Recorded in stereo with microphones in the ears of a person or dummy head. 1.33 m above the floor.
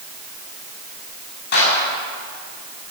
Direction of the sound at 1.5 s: 65° left (ahead or behind).